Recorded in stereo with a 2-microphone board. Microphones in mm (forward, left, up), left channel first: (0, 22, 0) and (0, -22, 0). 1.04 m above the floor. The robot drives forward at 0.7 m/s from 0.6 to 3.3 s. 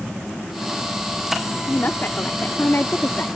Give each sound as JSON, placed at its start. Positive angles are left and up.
{"t": 1.7, "sound": "a woman speaking", "side_deg": 50}